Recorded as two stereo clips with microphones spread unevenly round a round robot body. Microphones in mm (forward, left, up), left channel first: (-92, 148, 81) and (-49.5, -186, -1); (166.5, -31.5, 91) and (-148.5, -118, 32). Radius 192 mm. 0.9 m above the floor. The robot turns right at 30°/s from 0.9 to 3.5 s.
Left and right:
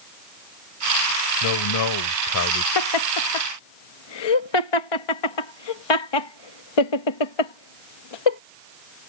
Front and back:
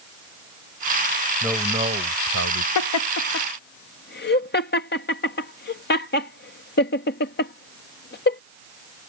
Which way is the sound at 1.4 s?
105° left.